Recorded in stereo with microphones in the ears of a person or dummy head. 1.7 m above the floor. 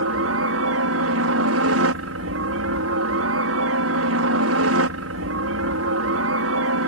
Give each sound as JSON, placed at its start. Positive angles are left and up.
{"t": 0.0, "sound": "a helicopter", "side_deg": -70}